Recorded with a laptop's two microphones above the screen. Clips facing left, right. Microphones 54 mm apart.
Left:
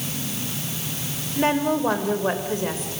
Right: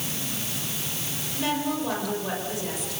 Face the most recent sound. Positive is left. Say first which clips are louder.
# left 6 dB
turn(degrees=40)  # may be behind; listen again after turning